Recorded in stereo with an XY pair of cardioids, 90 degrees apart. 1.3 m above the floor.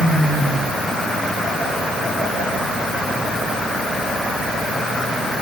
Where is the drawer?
No drawer in this recording.